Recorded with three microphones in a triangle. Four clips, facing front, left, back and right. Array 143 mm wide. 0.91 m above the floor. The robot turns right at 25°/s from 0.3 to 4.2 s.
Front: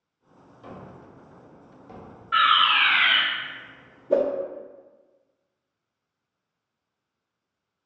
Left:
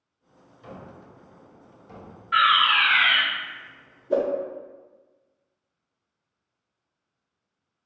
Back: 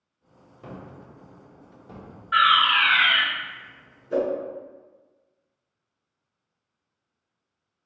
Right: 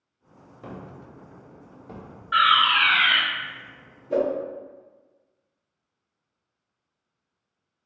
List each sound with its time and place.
0.6 s a gunshot: 115° right, 0.7 m; by 2.2 s 75° right, 0.7 m
2.3 s a fire alarm: 115° right, 1.4 m; by 3.2 s 95° right, 1.4 m
4.1 s a whoosh: 15° left, 0.6 m; by 4.3 s 20° left, 0.6 m